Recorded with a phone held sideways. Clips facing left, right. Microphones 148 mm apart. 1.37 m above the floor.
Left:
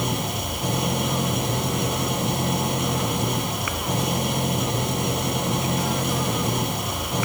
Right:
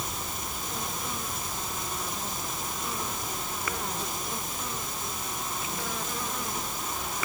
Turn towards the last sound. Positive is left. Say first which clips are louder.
# left 10 dB
turn(degrees=70)  # may be behind; listen again after turning